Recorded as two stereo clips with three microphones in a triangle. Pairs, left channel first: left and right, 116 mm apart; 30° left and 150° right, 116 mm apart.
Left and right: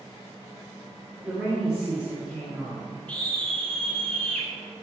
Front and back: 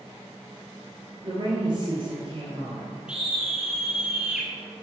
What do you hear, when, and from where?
1.2 s a woman speaking: 170° right, 2.5 m
3.1 s a scream: 150° left, 1.7 m